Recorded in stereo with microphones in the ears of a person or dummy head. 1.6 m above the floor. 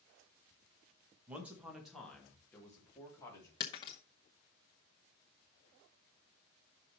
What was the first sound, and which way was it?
A man speaking, 10° right (ahead or behind).